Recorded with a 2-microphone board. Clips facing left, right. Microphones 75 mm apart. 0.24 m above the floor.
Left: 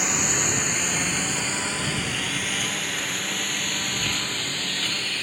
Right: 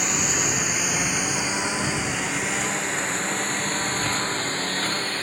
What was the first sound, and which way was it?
A lawn mower, centre (ahead or behind).